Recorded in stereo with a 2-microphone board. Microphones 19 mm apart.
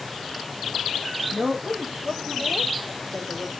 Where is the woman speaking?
70° right (ahead or behind), 3.5 m; by 3.5 s 65° right (ahead or behind), 4.5 m.